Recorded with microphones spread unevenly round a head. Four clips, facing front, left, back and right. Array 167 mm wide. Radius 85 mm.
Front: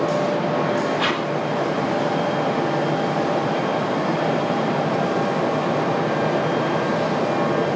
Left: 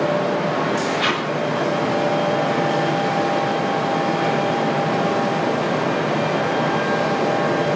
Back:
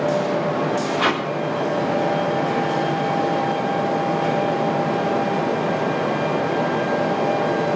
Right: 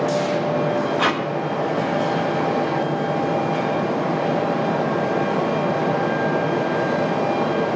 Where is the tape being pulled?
140° right, 1.6 m.